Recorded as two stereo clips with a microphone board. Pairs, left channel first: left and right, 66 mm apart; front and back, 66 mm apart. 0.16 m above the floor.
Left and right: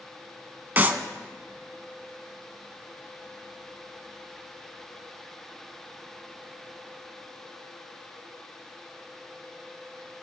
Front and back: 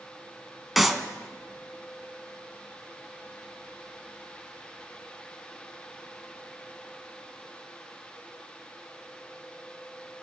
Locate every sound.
0.8 s a clap: 95° right, 1.1 m